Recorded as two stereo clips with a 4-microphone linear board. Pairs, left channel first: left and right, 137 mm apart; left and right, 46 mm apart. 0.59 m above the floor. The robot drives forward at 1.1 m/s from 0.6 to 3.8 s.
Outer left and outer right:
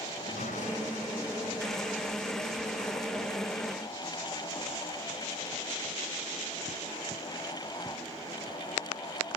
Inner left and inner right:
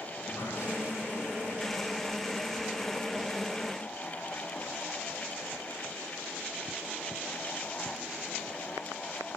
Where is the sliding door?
70° left (ahead or behind), 3.5 m; by 3.4 s 50° left (ahead or behind), 4 m.